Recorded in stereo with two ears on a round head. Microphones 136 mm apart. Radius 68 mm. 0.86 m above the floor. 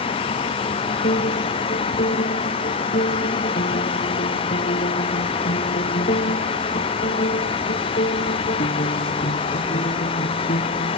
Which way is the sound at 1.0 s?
50° left (ahead or behind).